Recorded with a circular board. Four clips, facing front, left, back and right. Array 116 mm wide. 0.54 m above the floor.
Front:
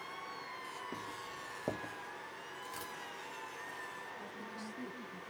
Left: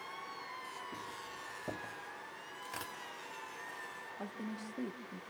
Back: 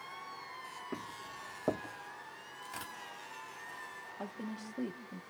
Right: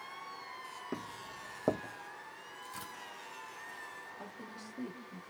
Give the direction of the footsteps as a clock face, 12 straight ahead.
3 o'clock.